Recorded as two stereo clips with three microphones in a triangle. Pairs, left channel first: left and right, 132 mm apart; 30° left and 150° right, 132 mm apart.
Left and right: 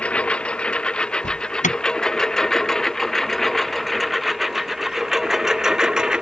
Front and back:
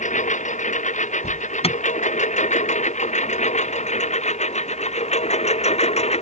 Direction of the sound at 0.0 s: 10° left.